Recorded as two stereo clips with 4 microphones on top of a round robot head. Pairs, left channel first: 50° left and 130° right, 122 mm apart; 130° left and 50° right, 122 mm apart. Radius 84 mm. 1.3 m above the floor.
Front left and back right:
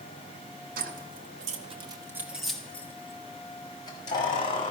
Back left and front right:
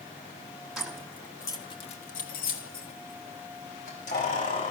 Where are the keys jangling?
135° right, 1.6 m; by 4.7 s 100° left, 3.5 m.